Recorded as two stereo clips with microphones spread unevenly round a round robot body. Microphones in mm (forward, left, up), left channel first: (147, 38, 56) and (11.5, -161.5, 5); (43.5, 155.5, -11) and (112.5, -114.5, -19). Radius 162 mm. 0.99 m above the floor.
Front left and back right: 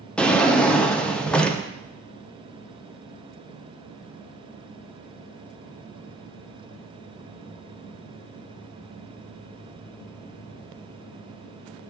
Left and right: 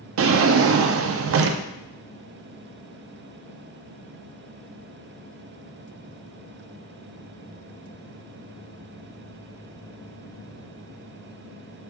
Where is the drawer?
30° right, 0.5 m.